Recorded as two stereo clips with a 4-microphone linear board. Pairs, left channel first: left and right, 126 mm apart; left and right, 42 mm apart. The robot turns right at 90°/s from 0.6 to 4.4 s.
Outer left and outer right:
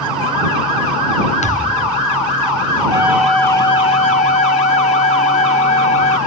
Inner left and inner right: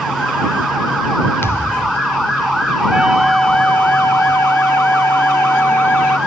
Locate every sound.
1.4 s a thud: 65° left; by 2.0 s 120° left
2.9 s a flute: 30° right; by 6.2 s 105° left